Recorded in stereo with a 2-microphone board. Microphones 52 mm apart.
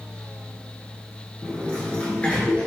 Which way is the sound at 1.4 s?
25° left (ahead or behind).